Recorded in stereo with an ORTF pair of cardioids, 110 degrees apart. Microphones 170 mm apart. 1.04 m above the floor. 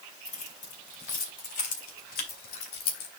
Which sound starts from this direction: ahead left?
Keys jangling, at 0.2 s.